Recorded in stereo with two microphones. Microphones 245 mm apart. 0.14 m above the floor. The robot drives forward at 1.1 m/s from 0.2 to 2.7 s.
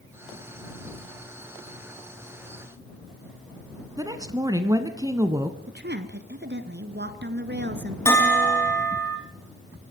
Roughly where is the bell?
Centre.